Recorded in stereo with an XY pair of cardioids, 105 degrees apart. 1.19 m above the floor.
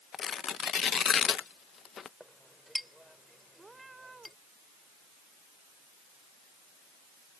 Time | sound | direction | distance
0.1 | tearing paper | 45° left | ?
2.2 | a clink | straight ahead | ?
3.6 | a cat meowing | 25° right | ?